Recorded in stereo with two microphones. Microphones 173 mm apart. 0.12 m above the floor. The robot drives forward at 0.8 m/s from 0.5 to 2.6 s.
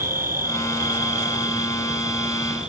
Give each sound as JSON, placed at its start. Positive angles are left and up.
{"t": 0.0, "sound": "an insect", "side_deg": -55}